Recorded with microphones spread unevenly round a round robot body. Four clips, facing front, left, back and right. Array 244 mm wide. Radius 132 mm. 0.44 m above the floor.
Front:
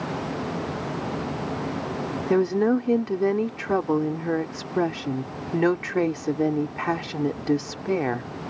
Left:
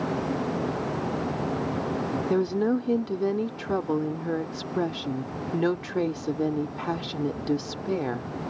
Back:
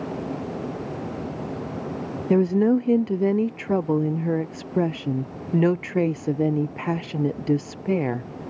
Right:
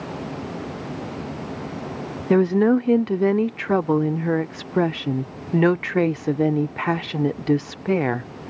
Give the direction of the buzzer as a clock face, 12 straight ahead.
No buzzer in this recording.